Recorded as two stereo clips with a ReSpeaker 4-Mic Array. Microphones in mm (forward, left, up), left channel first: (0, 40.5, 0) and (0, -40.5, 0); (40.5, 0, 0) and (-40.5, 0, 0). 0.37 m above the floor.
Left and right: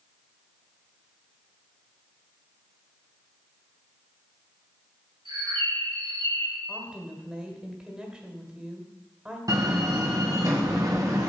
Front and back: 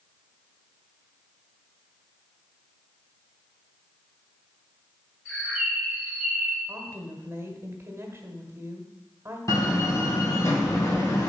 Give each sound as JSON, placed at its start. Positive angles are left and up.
{"t": 5.2, "sound": "a bird", "azimuth_deg": -85, "distance_m": 4.0}
{"t": 6.7, "sound": "a woman speaking", "azimuth_deg": -160, "distance_m": 1.4}
{"t": 9.5, "sound": "a door slam", "azimuth_deg": -50, "distance_m": 1.9}